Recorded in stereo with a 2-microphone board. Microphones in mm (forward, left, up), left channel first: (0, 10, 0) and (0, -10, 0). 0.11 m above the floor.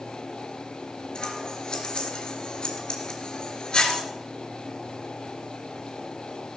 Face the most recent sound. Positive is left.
turn(degrees=45)  # may be behind; listen again after turning